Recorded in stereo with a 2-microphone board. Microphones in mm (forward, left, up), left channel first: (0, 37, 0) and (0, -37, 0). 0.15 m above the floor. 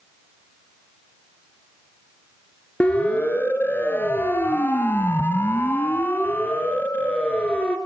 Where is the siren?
20° left (ahead or behind), 3.5 m; by 7.8 s 15° left (ahead or behind), 3.5 m.